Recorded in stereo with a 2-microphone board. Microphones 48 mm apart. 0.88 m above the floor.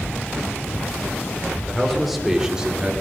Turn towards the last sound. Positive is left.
turn(degrees=-30)  # may be behind; listen again after turning